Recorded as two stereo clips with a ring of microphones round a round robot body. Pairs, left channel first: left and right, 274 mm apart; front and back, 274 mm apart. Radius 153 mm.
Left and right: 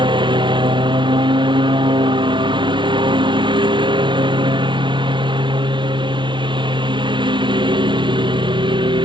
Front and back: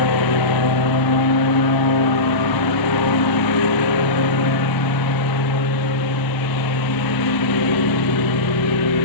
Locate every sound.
0.0 s a lawn mower: 15° right